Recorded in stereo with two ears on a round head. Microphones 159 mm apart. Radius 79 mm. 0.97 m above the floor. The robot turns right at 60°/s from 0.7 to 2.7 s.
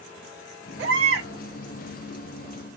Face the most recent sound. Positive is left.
turn(degrees=5)